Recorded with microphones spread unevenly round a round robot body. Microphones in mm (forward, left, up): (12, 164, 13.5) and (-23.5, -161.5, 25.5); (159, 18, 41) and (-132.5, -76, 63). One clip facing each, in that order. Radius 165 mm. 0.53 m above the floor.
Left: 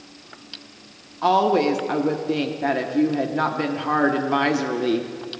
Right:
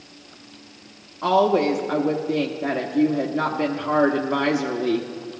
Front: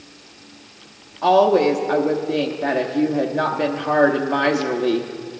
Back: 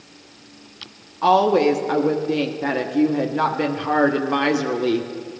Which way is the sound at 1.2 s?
140° left.